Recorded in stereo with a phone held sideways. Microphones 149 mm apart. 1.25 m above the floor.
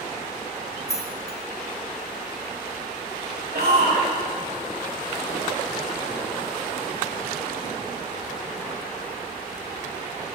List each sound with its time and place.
0.9 s keys jangling: 20° left (ahead or behind), 1.1 m
3.5 s a shout: 85° right, 3 m